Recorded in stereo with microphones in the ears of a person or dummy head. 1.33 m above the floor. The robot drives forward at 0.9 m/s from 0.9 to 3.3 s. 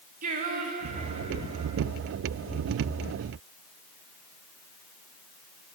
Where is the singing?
40° right (ahead or behind), 1.3 m; by 1.8 s 25° right (ahead or behind), 1.9 m.